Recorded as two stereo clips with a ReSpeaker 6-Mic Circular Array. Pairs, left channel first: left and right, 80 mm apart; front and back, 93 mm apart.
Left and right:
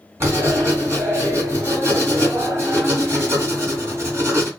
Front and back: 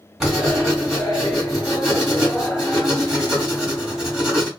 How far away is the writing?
About 1.5 m.